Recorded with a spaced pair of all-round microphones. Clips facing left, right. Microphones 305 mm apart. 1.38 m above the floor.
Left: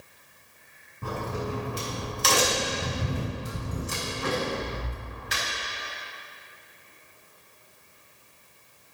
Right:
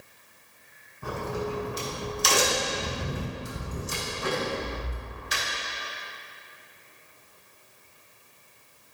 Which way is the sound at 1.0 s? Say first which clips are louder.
Right 1 dB; 70° left (ahead or behind).